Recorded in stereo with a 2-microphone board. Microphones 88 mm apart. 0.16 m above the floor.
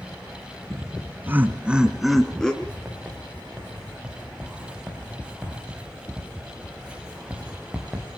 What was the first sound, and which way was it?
Laughter, 35° right (ahead or behind).